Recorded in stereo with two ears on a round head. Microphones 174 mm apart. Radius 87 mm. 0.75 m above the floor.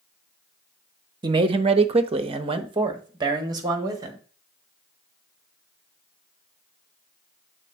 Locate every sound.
1.2 s a man speaking: 25° right (ahead or behind), 0.6 m; by 4.2 s 20° right (ahead or behind), 1.6 m